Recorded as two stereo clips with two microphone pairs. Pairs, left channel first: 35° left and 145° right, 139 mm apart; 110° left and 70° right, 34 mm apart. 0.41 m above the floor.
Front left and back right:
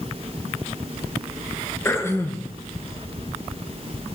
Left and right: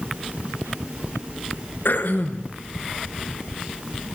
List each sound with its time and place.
1.9 s throat clearing: 110° left, 4 m